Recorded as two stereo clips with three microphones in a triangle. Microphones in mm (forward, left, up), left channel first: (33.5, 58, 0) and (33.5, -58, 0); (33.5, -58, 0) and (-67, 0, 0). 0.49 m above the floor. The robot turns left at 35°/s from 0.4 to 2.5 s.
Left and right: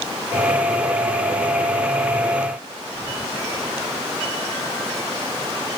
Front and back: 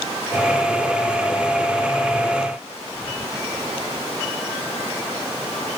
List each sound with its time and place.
Only background noise.